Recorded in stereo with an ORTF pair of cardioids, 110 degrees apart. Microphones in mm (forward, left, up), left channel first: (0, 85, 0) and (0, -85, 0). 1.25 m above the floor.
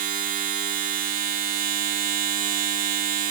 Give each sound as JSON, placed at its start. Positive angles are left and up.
{"t": 0.0, "sound": "a machine running", "azimuth_deg": -55, "distance_m": 1.3}